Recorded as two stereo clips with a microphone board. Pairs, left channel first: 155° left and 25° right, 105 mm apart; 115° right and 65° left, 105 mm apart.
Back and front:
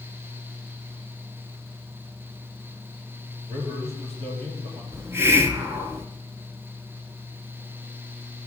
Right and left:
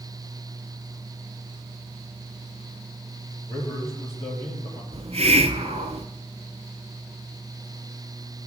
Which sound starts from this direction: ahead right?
A man speaking, at 3.5 s.